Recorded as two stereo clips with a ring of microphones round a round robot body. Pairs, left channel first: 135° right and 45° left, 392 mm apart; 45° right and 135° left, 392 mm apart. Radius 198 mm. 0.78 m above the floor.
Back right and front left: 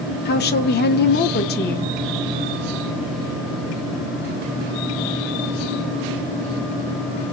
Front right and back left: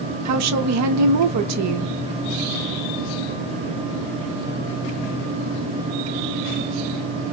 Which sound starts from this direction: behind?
A woman speaking, at 0.2 s.